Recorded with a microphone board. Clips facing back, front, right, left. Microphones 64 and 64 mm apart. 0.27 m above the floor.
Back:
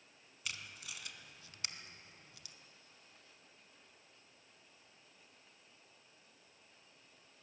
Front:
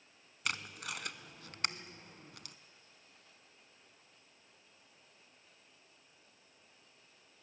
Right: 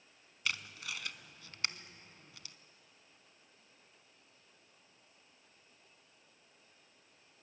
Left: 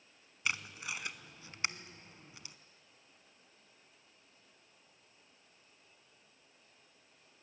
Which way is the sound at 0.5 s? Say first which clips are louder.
Front 8 dB, left 2 dB; 25° left.